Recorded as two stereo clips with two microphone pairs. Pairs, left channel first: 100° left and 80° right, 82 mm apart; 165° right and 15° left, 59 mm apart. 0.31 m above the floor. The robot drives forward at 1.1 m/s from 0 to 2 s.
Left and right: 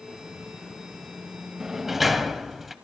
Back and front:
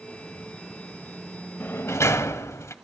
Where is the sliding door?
155° right, 0.8 m; by 2.8 s 165° right, 1.1 m.